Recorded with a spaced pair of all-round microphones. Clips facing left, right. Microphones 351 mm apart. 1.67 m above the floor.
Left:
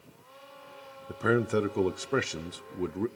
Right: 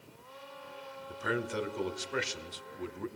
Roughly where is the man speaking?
Left.